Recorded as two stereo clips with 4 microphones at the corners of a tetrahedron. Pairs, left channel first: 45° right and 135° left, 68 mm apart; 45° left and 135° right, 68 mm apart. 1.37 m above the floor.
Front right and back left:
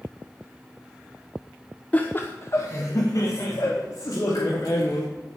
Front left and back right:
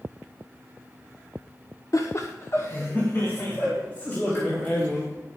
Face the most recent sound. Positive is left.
turn(degrees=-20)